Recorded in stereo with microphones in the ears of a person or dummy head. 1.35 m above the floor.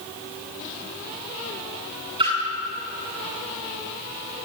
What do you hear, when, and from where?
2.2 s a splash: 25° right (ahead or behind), 9.5 m